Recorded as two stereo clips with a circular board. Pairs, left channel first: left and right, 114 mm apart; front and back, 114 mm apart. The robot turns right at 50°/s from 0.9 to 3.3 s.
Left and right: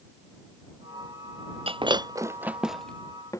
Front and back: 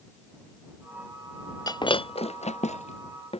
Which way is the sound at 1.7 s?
55° right.